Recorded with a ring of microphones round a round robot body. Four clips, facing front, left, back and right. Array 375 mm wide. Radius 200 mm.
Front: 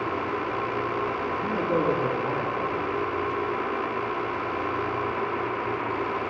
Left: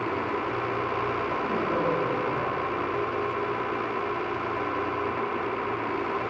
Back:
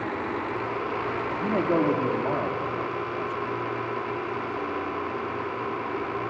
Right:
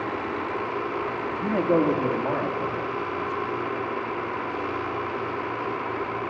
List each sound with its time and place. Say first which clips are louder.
1.4 s a man speaking: right 8 dB, back 2 dB; 130° right, 1.9 m